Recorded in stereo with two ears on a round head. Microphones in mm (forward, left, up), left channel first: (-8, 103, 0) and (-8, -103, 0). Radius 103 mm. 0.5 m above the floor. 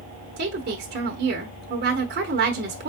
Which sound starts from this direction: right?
A woman speaking, at 0.4 s.